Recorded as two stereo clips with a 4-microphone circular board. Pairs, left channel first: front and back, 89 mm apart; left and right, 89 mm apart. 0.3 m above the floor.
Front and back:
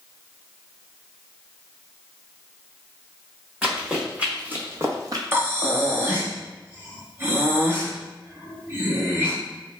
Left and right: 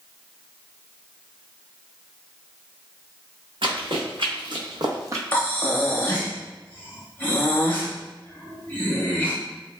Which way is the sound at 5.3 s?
140° left.